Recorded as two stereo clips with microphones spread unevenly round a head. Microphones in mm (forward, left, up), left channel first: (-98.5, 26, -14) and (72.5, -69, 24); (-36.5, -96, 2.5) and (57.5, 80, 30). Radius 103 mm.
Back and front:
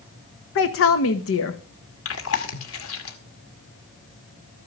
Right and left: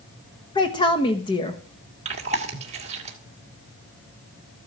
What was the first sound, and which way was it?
A woman speaking, 170° left.